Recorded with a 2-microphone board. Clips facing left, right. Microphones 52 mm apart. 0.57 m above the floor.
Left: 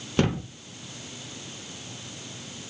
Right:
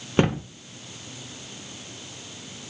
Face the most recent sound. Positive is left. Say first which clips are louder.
# right 3 dB
turn(degrees=-25)  # may be behind; listen again after turning